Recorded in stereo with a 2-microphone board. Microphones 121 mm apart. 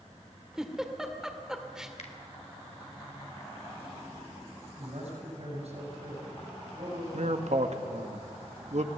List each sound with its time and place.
0.6 s a giggle: 5° right (ahead or behind), 1.9 m
2.0 s a finger snap: 70° left (ahead or behind), 2.5 m
4.8 s a man speaking: 65° right (ahead or behind), 6.5 m
7.1 s a man speaking: 70° right (ahead or behind), 1.6 m